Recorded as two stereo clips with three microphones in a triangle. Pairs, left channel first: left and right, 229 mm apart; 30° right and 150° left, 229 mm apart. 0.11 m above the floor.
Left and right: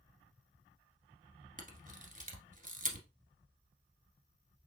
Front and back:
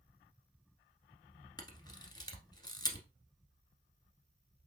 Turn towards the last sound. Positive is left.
turn(degrees=-90)